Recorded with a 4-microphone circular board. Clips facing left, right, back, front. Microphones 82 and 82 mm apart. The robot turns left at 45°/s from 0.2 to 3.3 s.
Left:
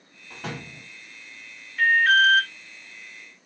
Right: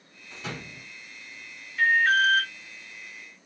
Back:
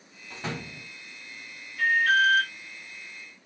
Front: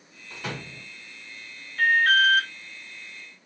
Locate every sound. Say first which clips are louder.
0.3 s a door slam: left 2 dB, even; 125° left, 3 m; by 0.9 s 100° left, 3 m
1.8 s an alarm: left 3 dB, front 2 dB; 15° left, 1.6 m; by 2.5 s 20° right, 1.6 m